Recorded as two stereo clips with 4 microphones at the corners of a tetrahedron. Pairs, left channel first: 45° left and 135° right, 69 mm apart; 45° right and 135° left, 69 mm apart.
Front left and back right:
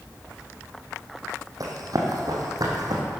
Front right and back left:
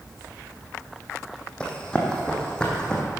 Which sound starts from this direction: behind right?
Running footsteps, at 1.6 s.